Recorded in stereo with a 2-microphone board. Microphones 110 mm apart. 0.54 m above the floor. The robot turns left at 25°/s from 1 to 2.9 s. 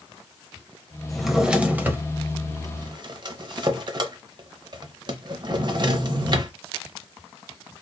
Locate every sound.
1.1 s a drawer: centre (ahead or behind), 0.7 m; by 6.5 s 45° right (ahead or behind), 0.7 m